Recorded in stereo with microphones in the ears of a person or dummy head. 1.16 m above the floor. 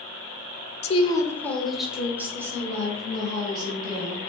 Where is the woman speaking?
35° left (ahead or behind), 0.5 m; by 4.3 s 25° right (ahead or behind), 2 m.